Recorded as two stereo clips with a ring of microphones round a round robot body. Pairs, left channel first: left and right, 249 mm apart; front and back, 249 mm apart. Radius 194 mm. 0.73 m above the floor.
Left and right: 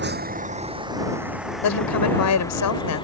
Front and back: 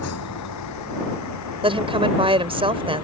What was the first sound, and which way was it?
A vehicle, 45° right.